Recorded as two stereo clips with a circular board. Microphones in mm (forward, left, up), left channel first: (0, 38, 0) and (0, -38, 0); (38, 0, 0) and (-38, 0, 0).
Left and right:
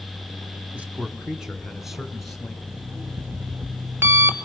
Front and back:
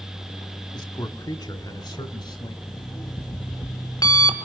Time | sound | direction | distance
0.7 | a man speaking | 20° right | 2 m
2.7 | an alarm clock | 30° right | 2 m